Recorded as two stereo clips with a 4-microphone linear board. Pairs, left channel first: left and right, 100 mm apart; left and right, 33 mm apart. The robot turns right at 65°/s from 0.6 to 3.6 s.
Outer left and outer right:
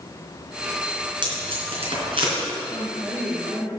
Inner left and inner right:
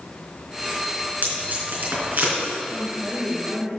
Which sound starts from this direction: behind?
A woman speaking, at 2.7 s.